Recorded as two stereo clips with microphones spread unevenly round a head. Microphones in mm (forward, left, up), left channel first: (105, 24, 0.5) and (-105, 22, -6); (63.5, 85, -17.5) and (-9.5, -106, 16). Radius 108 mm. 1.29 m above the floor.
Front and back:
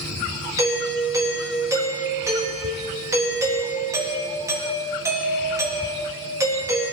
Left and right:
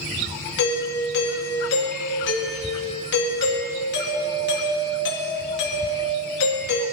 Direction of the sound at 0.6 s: 105° left.